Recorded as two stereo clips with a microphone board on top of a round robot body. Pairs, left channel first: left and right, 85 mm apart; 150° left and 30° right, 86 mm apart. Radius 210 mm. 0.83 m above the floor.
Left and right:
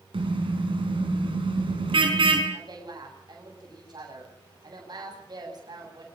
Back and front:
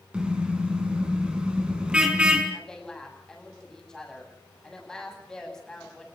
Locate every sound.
0.1 s a car horn: 110° right, 5 m
2.5 s a woman speaking: 130° right, 9 m